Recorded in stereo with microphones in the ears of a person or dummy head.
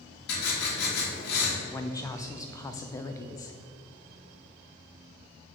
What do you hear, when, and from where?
0.3 s writing: 60° left (ahead or behind), 2.5 m
1.6 s a woman speaking: 20° left (ahead or behind), 0.7 m